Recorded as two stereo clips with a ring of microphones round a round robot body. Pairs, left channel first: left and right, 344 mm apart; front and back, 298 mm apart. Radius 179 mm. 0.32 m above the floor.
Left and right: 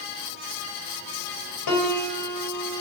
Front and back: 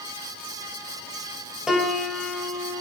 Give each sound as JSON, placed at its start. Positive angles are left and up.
{"t": 1.7, "sound": "a piano", "azimuth_deg": 90, "distance_m": 2.0}